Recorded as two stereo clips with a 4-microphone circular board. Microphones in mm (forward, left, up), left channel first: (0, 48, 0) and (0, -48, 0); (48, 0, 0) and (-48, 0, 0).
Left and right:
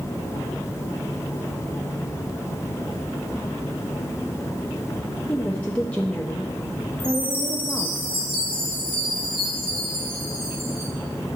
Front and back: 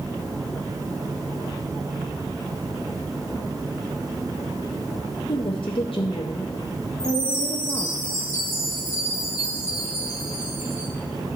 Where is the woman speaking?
15° left, 0.6 m.